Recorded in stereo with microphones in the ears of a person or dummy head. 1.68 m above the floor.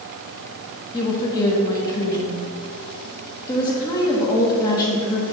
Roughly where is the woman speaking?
Left.